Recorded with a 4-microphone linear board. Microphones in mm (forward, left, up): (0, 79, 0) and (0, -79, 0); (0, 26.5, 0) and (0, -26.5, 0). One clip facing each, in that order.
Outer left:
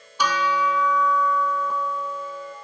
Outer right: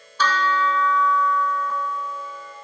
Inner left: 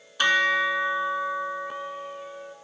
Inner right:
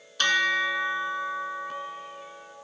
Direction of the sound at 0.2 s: 15° left (ahead or behind).